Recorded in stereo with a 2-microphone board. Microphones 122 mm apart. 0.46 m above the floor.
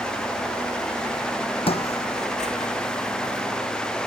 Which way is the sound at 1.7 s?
50° left (ahead or behind).